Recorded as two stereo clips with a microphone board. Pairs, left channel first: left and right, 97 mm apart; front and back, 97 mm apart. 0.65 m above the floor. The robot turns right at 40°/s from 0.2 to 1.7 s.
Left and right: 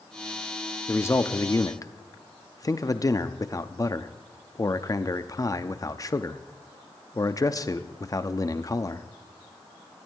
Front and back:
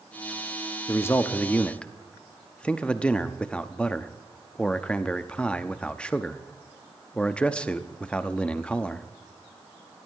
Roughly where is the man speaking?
Ahead left.